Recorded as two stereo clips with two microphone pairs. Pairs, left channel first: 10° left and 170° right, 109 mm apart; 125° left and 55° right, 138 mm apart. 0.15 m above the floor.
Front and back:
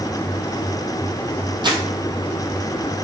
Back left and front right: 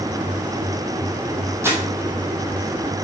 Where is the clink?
No clink in this recording.